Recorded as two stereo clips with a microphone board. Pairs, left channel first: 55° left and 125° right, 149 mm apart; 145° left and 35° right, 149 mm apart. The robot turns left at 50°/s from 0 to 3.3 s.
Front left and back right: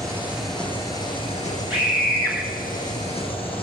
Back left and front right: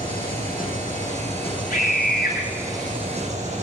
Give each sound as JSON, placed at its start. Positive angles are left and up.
{"t": 0.0, "sound": "an engine running", "azimuth_deg": 170, "distance_m": 6.0}
{"t": 1.7, "sound": "a scream", "azimuth_deg": 155, "distance_m": 9.5}